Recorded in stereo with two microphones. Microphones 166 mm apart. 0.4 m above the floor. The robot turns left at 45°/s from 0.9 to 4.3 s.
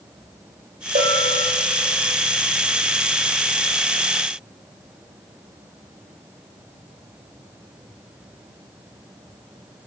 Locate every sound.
0.9 s a bell: 65° right (ahead or behind), 2 m; by 1.5 s 40° right (ahead or behind), 2 m